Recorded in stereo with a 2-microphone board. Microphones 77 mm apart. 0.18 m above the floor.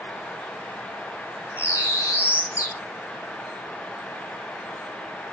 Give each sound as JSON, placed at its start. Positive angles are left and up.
{"t": 1.6, "sound": "a bird", "side_deg": -20, "distance_m": 2.5}